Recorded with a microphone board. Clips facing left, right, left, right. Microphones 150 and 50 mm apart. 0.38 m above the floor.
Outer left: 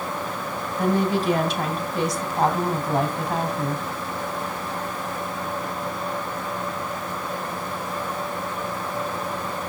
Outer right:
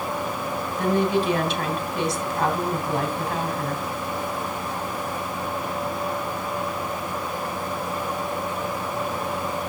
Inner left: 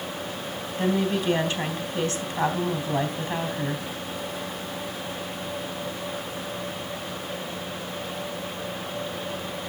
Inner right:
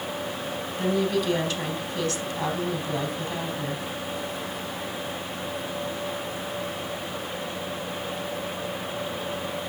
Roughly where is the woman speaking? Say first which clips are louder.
Even, even; left.